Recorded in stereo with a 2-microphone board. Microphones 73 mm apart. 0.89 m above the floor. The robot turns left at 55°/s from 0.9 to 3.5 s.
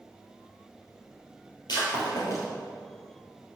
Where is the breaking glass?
75° left (ahead or behind), 3 m; by 2.5 s 50° left (ahead or behind), 3 m.